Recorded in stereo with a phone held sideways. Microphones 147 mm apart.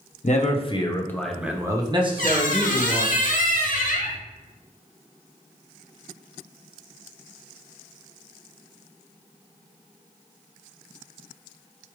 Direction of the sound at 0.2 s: 55° left (ahead or behind).